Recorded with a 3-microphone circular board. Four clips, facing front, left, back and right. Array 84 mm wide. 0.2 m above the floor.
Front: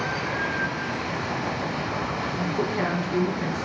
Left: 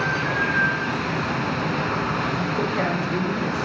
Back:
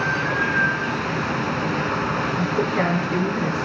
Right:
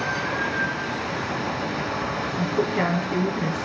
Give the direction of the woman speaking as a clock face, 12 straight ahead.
5 o'clock.